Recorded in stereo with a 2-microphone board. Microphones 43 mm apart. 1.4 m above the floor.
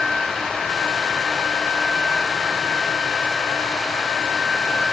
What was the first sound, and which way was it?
Only background noise.